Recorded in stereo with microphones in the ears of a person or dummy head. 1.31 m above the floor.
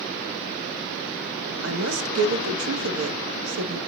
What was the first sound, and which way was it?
A woman speaking, 85° right.